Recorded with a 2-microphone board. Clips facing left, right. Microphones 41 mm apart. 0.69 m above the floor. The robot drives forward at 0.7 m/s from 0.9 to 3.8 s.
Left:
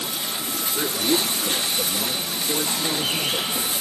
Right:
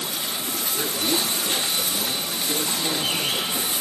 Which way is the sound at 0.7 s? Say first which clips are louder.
Left 3 dB; 25° left (ahead or behind).